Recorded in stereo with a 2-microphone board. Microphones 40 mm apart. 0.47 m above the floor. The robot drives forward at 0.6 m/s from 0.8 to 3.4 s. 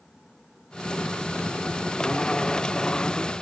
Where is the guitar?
No guitar in this recording.